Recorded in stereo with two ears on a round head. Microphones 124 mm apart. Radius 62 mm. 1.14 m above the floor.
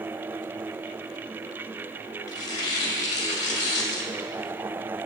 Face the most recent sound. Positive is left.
turn(degrees=30)  # may be behind; listen again after turning